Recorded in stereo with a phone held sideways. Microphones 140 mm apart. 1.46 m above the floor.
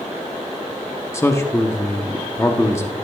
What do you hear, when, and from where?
1.1 s a man speaking: 20° left (ahead or behind), 0.9 m